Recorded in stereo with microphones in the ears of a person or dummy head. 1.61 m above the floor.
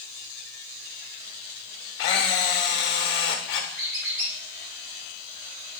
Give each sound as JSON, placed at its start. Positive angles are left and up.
{"t": 2.0, "sound": "a camera shutter", "side_deg": 60, "distance_m": 0.9}
{"t": 3.8, "sound": "a squeak", "side_deg": -60, "distance_m": 2.0}